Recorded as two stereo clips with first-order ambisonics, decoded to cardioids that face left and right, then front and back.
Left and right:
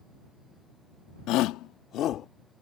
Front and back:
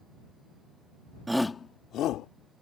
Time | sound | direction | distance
1.3 | a shout | 100° left | ?